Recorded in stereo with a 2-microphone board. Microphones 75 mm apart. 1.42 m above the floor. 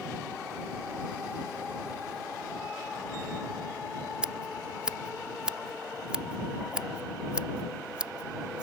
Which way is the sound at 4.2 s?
10° right (ahead or behind).